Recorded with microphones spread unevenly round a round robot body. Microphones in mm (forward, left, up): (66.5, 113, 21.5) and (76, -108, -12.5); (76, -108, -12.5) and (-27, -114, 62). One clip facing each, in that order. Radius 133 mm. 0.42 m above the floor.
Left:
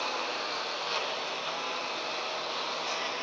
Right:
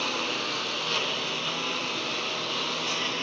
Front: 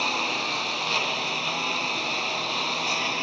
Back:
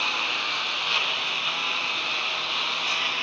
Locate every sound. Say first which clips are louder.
0.0 s a lawn mower: right 4 dB, front 3 dB; 40° right